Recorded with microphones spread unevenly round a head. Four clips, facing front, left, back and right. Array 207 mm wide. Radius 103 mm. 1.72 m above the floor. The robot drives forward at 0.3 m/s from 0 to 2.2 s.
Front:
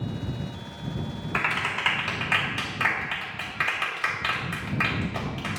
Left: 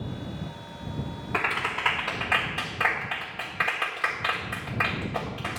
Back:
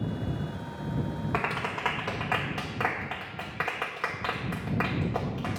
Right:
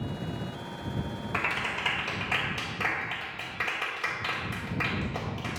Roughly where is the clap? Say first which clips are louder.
Left 4 dB, front 4 dB; behind.